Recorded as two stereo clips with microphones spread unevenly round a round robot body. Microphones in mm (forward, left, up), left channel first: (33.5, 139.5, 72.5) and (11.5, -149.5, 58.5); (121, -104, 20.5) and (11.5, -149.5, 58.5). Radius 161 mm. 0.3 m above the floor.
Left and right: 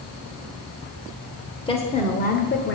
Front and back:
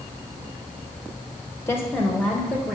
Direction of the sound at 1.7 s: 20° left.